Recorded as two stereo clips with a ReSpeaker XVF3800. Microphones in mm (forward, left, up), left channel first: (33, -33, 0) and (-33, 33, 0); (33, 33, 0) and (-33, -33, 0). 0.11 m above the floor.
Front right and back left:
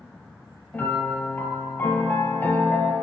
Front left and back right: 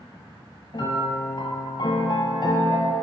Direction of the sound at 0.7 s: 25° left.